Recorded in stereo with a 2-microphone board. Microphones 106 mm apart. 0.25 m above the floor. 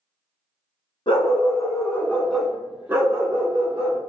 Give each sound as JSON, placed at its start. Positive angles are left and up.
{"t": 1.1, "sound": "a dog barking", "side_deg": 60, "distance_m": 0.8}